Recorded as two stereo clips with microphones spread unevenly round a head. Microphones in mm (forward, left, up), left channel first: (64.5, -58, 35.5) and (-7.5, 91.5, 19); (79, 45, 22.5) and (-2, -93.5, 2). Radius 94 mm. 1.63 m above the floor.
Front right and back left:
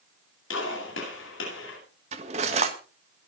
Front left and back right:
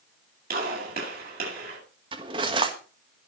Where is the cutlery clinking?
175° left, 1.3 m.